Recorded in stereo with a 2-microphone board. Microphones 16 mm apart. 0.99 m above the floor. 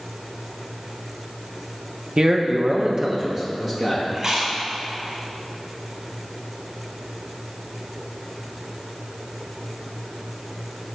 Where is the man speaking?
45° right (ahead or behind), 0.8 m; by 4.0 s 10° right (ahead or behind), 1.7 m.